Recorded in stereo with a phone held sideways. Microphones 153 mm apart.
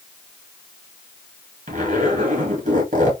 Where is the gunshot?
No gunshot in this recording.